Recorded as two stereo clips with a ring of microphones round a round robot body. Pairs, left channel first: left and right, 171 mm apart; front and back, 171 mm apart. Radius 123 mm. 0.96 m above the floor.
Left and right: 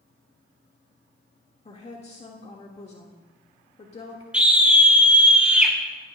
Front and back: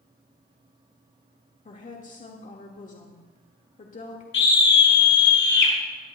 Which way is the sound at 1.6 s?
40° left.